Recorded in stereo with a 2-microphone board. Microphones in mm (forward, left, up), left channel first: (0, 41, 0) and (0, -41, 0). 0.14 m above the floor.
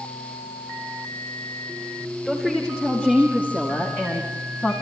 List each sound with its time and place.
2.2 s a woman speaking: 5° left (ahead or behind), 6 m; by 4.7 s 25° left (ahead or behind), 6.5 m